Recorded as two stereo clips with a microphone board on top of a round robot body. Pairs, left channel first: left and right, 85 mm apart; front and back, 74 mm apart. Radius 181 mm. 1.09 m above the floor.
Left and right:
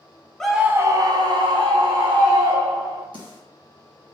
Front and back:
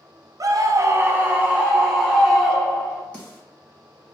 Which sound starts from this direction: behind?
A scream, at 0.4 s.